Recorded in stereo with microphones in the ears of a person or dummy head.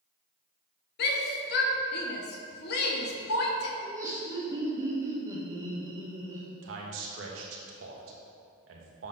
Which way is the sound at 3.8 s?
20° right (ahead or behind).